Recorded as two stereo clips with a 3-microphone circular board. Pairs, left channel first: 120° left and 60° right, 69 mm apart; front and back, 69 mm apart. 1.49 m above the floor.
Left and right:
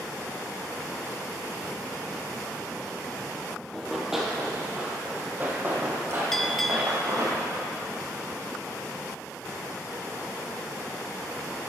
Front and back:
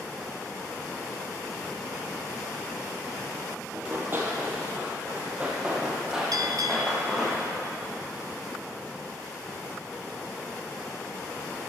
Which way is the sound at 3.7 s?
155° right.